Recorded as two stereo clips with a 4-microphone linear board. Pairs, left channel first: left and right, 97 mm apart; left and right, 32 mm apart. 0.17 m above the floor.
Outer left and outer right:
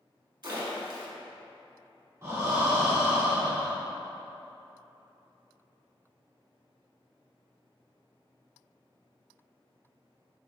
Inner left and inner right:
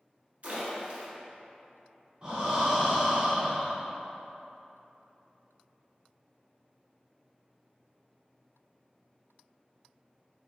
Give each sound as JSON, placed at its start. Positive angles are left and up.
{"t": 0.4, "sound": "a splash", "side_deg": -50, "distance_m": 1.1}
{"t": 2.2, "sound": "breathing", "side_deg": -30, "distance_m": 1.3}